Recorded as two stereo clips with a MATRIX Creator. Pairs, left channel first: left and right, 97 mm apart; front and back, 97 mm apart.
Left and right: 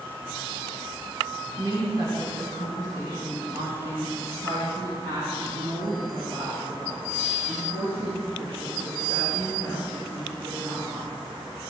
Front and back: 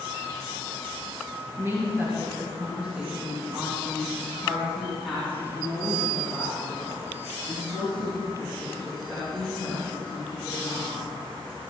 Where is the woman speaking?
120° right, 2.5 m; by 11.3 s 75° right, 6 m.